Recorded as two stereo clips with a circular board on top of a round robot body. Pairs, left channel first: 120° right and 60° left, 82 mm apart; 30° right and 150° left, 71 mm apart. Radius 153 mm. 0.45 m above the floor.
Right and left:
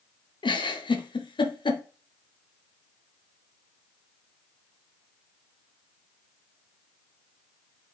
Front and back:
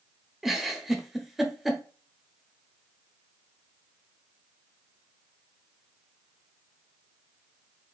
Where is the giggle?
125° right, 0.9 m.